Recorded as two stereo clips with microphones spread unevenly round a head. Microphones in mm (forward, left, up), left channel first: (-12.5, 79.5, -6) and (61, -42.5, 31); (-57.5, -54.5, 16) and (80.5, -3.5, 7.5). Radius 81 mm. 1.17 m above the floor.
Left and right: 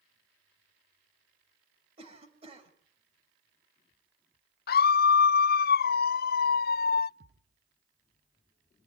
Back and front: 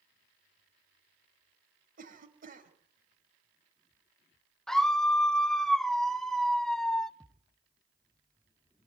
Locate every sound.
2.0 s a cough: 10° right, 5.5 m
4.7 s a scream: 110° left, 0.6 m
7.2 s a thud: 75° right, 6.5 m